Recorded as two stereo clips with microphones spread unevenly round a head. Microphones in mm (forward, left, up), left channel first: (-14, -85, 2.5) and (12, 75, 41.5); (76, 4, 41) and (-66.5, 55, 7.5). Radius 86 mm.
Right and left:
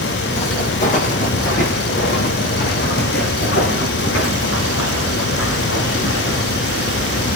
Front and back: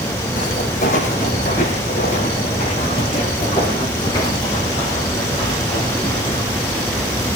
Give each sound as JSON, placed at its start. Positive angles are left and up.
{"t": 0.4, "sound": "footsteps", "azimuth_deg": -45, "distance_m": 3.5}